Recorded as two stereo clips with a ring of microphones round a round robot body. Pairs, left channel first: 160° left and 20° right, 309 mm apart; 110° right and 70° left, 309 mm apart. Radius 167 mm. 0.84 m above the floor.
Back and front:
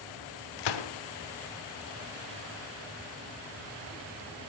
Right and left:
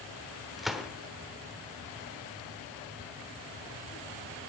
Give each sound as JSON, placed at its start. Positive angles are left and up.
{"t": 0.6, "sound": "a gunshot", "azimuth_deg": 155, "distance_m": 1.1}